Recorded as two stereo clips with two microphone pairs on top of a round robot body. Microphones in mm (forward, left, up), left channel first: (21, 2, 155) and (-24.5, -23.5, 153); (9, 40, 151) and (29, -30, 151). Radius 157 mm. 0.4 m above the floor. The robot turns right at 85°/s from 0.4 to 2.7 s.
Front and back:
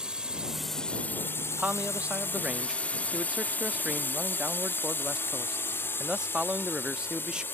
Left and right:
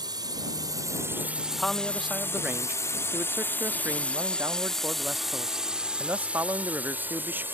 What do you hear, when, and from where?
0.0 s a drone: 80° right; by 7.5 s 15° right
1.5 s a man speaking: 160° left; by 7.5 s 100° right